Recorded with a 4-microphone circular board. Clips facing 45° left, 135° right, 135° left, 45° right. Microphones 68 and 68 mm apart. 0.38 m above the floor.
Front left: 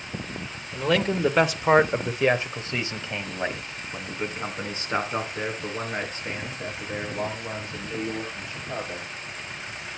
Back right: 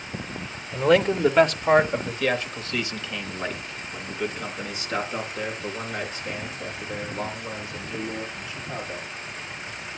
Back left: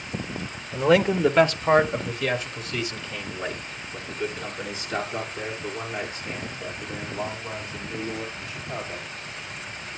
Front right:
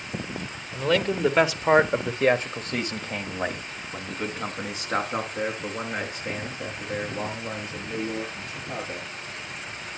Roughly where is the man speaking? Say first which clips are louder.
Back right 4 dB, back left 4 dB; behind.